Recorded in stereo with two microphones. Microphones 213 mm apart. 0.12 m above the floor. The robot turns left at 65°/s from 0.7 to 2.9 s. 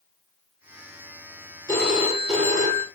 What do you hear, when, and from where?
1.7 s a phone ringing: 15° left, 2 m; by 2.9 s 60° right, 2 m